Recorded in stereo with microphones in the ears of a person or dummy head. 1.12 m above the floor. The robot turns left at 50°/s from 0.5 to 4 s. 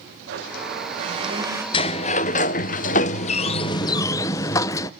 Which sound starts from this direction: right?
A blender, at 0.3 s.